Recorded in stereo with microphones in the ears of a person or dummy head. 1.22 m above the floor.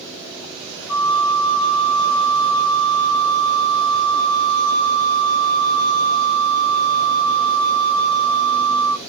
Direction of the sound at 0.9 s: 60° left (ahead or behind).